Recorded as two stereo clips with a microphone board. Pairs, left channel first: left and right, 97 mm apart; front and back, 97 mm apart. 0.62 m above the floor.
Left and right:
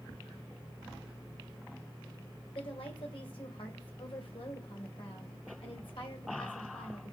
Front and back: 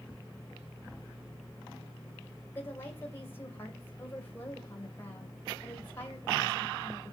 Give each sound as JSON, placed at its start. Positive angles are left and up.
{"t": 2.5, "sound": "a woman speaking", "azimuth_deg": 65, "distance_m": 2.5}